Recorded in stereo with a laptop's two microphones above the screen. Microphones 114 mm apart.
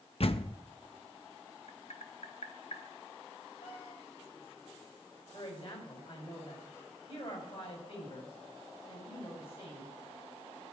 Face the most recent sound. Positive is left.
turn(degrees=55)  # may be behind; listen again after turning